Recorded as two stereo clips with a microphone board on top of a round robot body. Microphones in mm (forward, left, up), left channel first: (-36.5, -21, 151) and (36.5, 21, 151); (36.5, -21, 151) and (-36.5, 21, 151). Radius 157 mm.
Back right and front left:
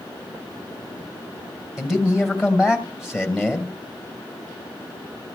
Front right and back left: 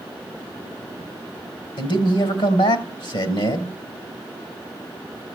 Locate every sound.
1.8 s a man speaking: 55° right, 3.5 m